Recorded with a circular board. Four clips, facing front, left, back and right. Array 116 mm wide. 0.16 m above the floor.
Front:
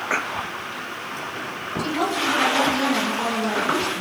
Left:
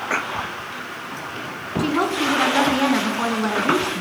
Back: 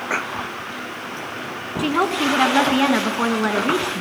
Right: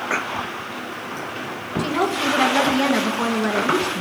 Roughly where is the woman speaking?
Behind.